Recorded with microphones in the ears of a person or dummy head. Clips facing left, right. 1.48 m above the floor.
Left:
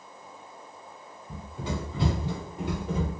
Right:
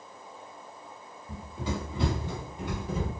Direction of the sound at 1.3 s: 25° right (ahead or behind).